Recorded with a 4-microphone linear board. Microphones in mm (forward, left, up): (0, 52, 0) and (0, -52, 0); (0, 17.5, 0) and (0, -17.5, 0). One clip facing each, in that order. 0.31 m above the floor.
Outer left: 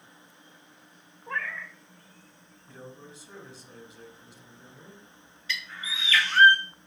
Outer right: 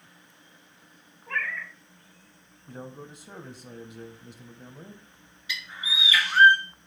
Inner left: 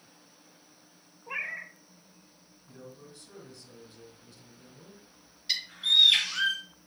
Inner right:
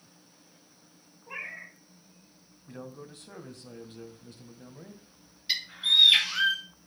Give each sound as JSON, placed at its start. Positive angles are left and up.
{"t": 1.3, "sound": "a cat meowing", "side_deg": 25, "distance_m": 1.2}
{"t": 2.7, "sound": "a man speaking", "side_deg": -55, "distance_m": 1.7}
{"t": 5.5, "sound": "a bird", "side_deg": -15, "distance_m": 2.0}